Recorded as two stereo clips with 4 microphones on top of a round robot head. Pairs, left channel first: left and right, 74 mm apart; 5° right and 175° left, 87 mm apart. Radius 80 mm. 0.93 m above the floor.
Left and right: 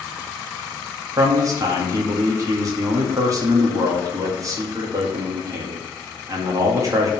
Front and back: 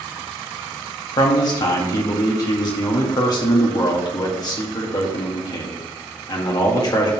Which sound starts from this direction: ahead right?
A man speaking, at 1.2 s.